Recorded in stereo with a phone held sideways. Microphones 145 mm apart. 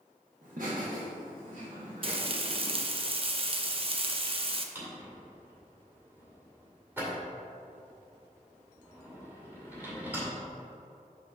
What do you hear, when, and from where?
0.4 s laughter: 60° right (ahead or behind), 1.5 m; by 2.7 s 50° right (ahead or behind), 1.5 m
2.0 s frying: 40° right (ahead or behind), 0.6 m
4.8 s a drawer: 15° right (ahead or behind), 1.9 m